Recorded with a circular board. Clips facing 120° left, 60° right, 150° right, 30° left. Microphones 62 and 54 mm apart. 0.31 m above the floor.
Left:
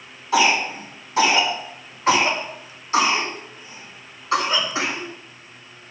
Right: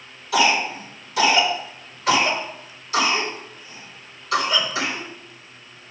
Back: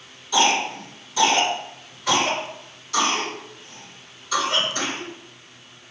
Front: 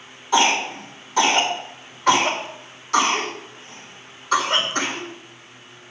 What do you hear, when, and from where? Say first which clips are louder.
0.3 s a cough: left 1 dB, front 1 dB; 65° left, 3 m